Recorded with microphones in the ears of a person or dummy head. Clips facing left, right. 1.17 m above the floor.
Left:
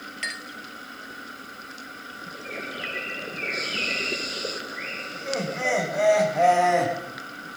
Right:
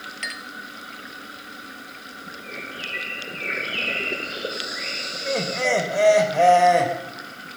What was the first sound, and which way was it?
A clink, 10° left (ahead or behind).